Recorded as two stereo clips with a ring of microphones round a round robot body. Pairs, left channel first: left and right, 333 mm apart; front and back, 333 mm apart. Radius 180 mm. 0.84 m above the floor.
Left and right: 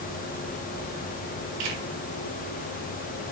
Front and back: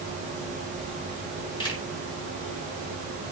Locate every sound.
1.6 s a camera shutter: 75° right, 5 m